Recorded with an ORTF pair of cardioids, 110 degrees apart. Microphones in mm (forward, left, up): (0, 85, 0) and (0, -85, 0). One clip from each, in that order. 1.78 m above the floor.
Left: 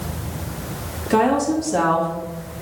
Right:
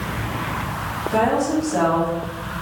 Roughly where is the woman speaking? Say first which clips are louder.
Left 2 dB; ahead left.